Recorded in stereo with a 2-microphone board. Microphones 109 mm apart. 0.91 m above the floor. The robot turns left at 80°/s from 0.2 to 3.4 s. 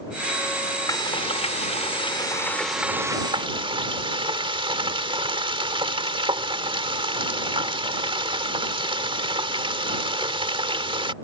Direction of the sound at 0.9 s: 145° left.